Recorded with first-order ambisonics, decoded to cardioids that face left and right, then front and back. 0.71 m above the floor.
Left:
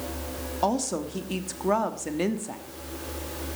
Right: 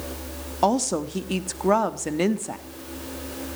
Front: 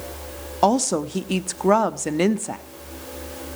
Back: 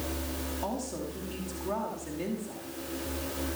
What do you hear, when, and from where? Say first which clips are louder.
0.6 s a woman speaking: right 5 dB, front 19 dB; 15° right, 1.1 m